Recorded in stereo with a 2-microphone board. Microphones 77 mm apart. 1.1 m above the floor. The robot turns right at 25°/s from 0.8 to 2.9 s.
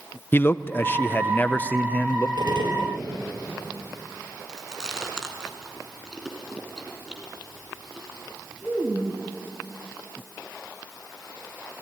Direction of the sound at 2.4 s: 75° right (ahead or behind).